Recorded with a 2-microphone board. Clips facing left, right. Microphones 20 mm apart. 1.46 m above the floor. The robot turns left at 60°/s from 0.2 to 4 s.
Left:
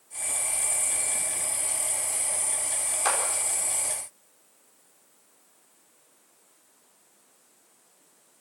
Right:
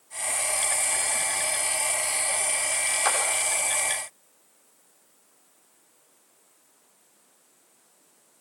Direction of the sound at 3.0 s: 10° right (ahead or behind).